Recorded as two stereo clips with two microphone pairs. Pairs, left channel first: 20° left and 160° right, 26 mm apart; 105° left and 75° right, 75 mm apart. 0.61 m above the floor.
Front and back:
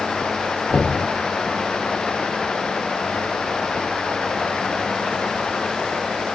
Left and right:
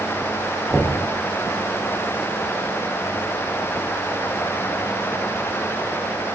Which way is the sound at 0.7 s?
10° left.